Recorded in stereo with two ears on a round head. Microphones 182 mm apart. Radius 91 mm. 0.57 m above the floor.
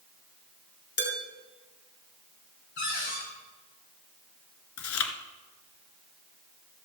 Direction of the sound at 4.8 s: 75° left (ahead or behind).